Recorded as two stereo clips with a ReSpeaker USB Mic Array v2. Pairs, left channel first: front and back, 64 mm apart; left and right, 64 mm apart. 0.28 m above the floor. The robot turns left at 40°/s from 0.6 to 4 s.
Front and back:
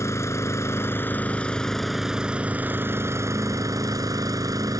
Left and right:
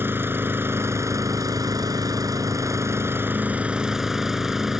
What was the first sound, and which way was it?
An engine running, 40° right.